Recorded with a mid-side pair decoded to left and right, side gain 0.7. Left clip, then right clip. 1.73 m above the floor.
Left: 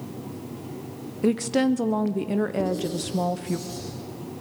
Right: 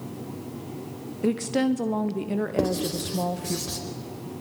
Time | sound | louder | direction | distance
1.2 | a woman speaking | left 2 dB | 10° left | 1.0 m
2.6 | writing | right 1 dB | 60° right | 4 m